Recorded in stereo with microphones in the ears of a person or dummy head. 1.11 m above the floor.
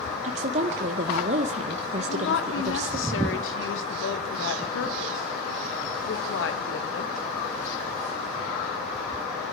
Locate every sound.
0.2 s a woman speaking: 40° right (ahead or behind), 0.7 m
2.0 s a woman speaking: 65° left (ahead or behind), 1.5 m